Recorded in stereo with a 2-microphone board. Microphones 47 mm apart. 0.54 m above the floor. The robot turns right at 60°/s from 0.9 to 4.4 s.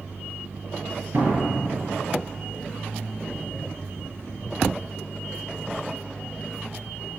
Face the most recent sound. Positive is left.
turn(degrees=130)